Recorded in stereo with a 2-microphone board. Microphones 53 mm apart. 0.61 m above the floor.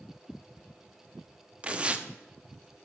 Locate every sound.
1.6 s tearing paper: 25° right (ahead or behind), 0.7 m